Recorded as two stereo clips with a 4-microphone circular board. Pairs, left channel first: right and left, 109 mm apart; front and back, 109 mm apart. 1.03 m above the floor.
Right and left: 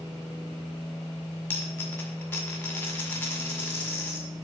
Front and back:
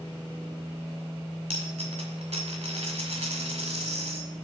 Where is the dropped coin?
165° right, 1.7 m.